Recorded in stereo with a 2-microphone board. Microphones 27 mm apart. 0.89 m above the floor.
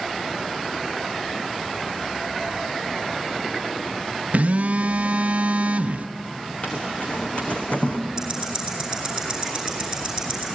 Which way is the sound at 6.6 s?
50° left (ahead or behind).